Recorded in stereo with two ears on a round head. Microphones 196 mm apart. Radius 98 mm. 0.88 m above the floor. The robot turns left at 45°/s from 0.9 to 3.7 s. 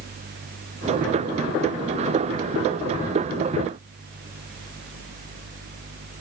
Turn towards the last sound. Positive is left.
No sound to turn to.